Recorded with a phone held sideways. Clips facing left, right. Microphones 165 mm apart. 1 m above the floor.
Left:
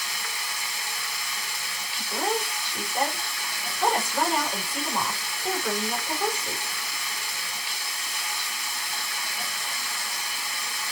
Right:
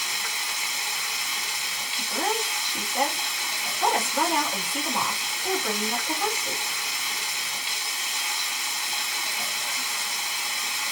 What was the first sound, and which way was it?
Running water, 20° right (ahead or behind).